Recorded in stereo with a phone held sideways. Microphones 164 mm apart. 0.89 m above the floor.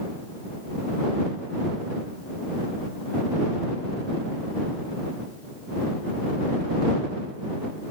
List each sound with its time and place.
Only background noise.